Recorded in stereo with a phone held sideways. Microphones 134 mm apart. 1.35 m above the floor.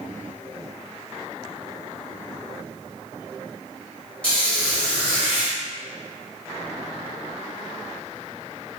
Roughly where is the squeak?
Centre.